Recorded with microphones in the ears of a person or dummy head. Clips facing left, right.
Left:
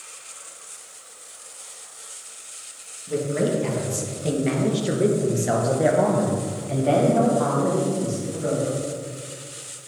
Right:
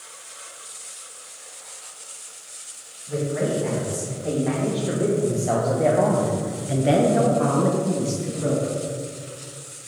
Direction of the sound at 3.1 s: 50° left (ahead or behind).